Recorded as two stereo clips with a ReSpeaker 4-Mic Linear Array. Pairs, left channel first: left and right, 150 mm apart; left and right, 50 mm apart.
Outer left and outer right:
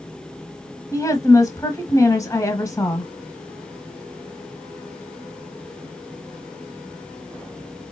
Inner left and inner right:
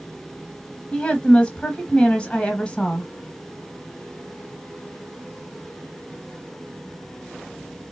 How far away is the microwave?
I don't hear a microwave.